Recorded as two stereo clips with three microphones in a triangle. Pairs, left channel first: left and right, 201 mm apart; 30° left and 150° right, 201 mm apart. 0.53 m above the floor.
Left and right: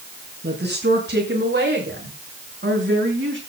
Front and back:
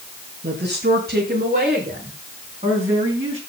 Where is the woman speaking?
120° right, 6.5 m; by 3.4 s 90° right, 7 m.